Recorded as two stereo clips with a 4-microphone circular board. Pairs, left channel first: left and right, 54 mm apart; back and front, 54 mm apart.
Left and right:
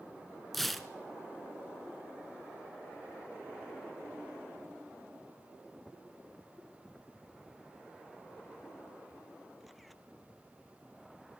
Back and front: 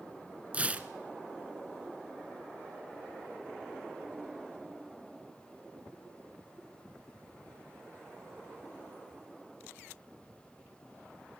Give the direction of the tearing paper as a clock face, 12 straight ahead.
12 o'clock.